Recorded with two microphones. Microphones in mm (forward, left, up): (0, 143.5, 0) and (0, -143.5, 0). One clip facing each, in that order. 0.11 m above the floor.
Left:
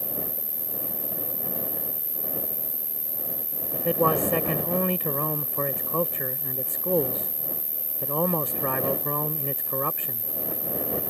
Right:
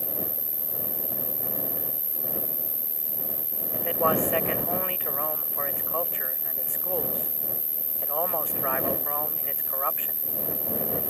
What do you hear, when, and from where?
0.0 s an insect: 55° left (ahead or behind)
3.7 s a man speaking: 45° left (ahead or behind)